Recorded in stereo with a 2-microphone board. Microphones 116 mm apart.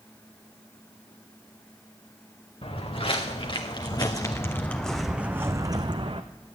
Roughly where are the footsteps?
Left.